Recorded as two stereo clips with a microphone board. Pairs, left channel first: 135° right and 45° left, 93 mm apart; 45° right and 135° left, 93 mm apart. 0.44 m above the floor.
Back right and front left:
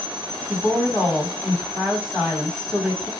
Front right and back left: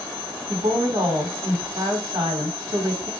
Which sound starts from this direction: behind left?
A woman speaking, at 0.5 s.